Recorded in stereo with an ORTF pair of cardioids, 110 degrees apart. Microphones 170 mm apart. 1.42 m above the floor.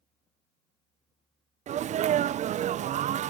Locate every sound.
1.7 s a sneeze: 45° right, 0.5 m